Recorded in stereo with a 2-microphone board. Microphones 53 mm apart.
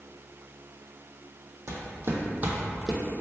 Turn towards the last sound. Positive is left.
turn(degrees=5)  # may be behind; listen again after turning